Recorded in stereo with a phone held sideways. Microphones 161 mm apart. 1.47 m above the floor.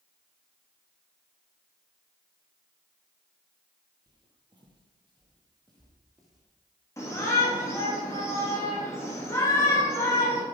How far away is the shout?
About 2.5 m.